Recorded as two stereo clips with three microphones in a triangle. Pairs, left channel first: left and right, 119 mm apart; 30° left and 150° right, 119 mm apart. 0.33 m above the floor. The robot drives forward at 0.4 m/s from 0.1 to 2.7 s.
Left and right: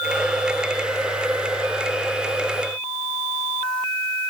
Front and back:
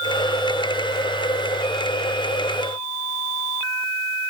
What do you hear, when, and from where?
Only background noise.